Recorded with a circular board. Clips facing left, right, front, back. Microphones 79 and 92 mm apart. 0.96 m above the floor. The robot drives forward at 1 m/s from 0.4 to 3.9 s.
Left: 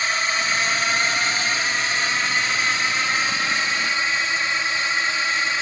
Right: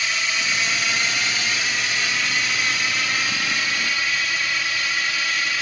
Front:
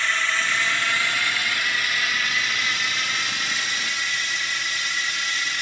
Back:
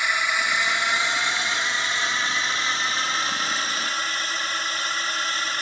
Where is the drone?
115° left; by 5.6 s 145° left.